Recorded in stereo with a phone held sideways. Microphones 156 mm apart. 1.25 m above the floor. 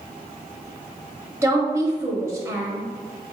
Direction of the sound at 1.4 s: 15° right (ahead or behind).